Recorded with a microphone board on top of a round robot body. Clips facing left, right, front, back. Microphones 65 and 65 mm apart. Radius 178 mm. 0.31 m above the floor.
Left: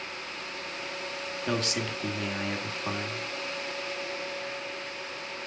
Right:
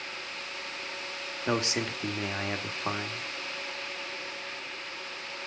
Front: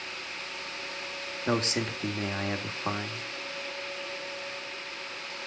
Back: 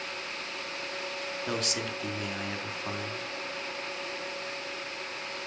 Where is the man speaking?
35° right, 1.6 m.